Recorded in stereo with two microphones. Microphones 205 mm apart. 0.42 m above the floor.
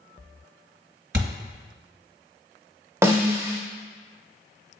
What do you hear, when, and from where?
1.1 s a thud: 65° right (ahead or behind), 1.6 m
3.0 s a snare drum: 15° right (ahead or behind), 0.8 m